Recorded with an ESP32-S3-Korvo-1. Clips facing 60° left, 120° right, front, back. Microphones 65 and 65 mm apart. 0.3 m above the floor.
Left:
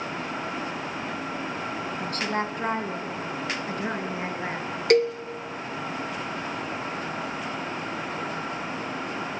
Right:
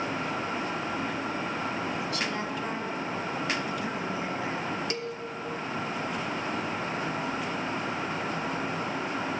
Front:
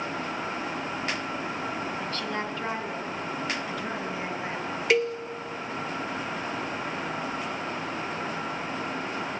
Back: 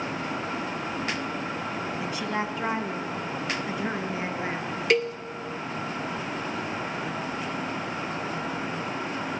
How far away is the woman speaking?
About 2.5 m.